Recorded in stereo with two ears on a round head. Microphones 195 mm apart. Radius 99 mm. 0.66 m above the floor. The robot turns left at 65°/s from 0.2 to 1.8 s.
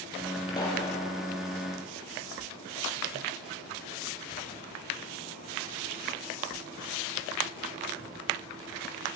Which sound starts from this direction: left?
A pop, at 0.5 s.